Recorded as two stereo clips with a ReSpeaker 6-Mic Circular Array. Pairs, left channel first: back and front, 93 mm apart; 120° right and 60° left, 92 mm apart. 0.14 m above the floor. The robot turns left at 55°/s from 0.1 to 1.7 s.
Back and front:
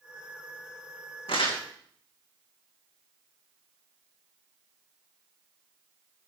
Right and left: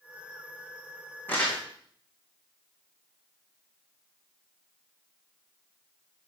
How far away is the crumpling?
About 3.5 m.